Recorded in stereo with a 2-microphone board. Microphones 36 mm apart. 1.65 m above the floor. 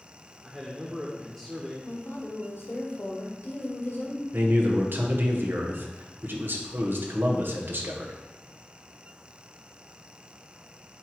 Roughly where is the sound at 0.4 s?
Centre.